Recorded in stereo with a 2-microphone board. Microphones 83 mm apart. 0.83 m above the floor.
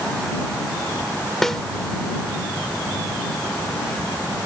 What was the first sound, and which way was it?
A snare drum, 5° left (ahead or behind).